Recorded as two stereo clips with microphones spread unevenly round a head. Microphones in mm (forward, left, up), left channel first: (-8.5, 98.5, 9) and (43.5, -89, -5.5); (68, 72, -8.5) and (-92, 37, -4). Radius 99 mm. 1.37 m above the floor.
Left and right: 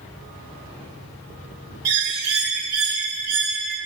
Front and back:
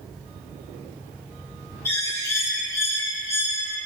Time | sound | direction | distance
1.9 | a bird | 65° right | 2 m